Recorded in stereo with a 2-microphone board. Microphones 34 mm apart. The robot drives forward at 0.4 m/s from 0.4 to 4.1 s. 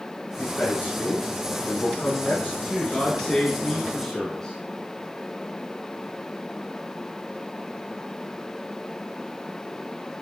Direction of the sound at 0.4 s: 65° left (ahead or behind).